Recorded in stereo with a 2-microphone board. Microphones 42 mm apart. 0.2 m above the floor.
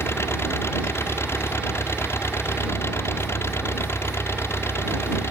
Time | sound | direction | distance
0.0 | an engine running | 80° left | ?